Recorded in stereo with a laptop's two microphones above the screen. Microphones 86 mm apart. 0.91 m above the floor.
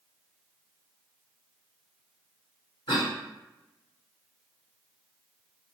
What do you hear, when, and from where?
2.9 s a cough: 75° left (ahead or behind), 1.7 m